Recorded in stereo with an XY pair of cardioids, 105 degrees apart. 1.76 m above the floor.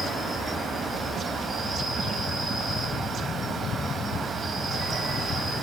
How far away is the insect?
About 2 m.